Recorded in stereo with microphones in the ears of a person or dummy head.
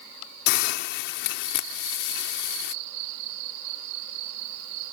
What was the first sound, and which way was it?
A hiss, 65° left (ahead or behind).